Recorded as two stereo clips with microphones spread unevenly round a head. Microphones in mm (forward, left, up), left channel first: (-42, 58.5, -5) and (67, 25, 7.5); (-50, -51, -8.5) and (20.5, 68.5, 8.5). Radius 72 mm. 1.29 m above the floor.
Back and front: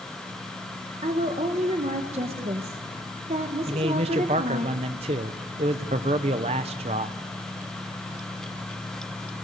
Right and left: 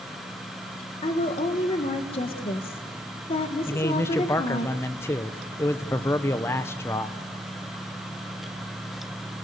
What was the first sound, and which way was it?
A woman speaking, 70° right.